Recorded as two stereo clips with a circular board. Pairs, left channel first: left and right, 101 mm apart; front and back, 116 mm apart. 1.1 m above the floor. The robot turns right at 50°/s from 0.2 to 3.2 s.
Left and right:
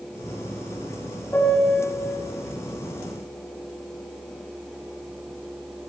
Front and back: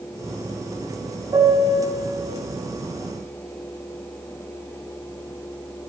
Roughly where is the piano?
Behind left.